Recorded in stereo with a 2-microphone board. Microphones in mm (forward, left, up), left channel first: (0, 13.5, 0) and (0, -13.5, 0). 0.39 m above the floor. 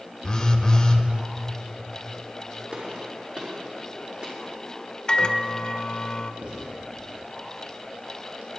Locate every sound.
0.2 s a phone buzzing: 25° left (ahead or behind), 1.0 m
2.7 s a gunshot: 45° right (ahead or behind), 5.5 m
5.1 s a microwave: 35° left (ahead or behind), 0.7 m
6.4 s writing: 75° right (ahead or behind), 5.5 m